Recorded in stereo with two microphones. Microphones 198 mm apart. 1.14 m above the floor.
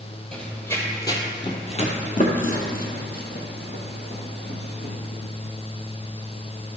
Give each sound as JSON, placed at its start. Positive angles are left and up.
{"t": 0.3, "sound": "running footsteps", "side_deg": 5, "distance_m": 1.5}